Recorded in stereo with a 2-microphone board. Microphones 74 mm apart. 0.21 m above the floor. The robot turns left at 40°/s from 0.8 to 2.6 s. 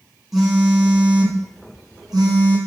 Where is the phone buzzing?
5° right, 2.0 m; by 2.6 s 80° right, 2.0 m.